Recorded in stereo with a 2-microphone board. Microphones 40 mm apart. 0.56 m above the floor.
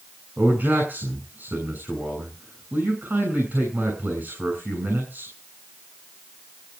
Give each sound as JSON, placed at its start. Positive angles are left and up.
{"t": 0.4, "sound": "a man speaking", "side_deg": -55, "distance_m": 7.5}